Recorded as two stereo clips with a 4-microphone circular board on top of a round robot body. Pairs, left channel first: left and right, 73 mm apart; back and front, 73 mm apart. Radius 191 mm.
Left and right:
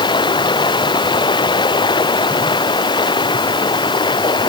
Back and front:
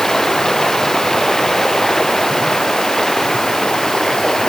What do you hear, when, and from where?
0.0 s running water: 95° left